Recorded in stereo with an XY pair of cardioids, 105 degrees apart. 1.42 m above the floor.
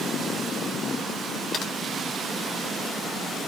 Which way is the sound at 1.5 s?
65° left.